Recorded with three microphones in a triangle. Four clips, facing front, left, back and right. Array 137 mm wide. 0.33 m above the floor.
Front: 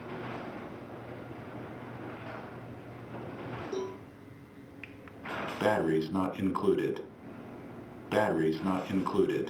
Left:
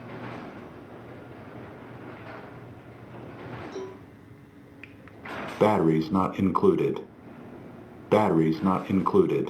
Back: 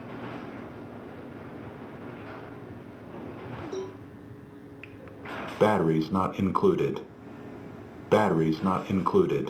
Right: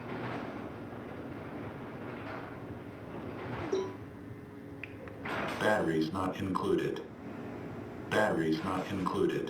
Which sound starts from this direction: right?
A cowbell, at 3.7 s.